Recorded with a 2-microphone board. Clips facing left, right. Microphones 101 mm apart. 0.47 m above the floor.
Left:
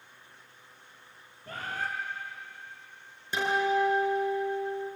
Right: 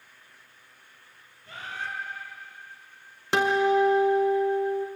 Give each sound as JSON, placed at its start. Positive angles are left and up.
{"t": 1.5, "sound": "a bird", "side_deg": 45, "distance_m": 3.0}
{"t": 3.3, "sound": "a guitar", "side_deg": -85, "distance_m": 1.9}